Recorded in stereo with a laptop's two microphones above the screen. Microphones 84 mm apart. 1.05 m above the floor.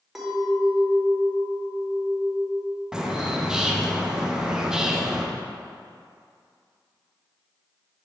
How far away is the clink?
About 2.0 m.